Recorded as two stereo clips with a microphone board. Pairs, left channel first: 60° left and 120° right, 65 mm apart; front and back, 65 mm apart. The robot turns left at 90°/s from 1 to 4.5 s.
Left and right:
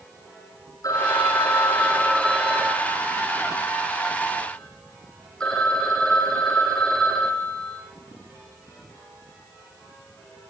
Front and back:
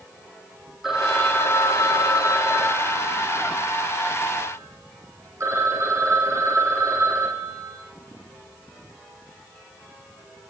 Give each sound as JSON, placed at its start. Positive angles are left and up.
{"t": 0.8, "sound": "a phone ringing", "azimuth_deg": 95, "distance_m": 4.5}